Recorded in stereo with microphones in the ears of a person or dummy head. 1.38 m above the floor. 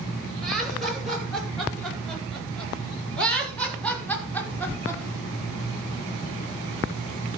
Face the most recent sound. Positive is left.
turn(degrees=15)  # may be behind; listen again after turning